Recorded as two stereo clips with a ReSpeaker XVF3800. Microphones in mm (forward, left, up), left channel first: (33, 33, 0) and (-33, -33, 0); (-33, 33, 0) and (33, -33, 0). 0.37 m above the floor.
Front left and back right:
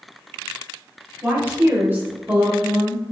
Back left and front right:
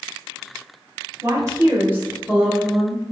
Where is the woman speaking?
80° right, 1.7 m; by 3.1 s 160° right, 1.3 m.